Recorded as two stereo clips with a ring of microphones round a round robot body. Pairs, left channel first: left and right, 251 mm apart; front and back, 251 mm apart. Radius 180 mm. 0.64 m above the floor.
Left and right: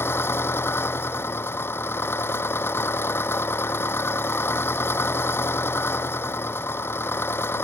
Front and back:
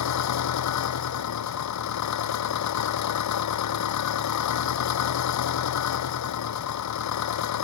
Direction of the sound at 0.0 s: 10° left.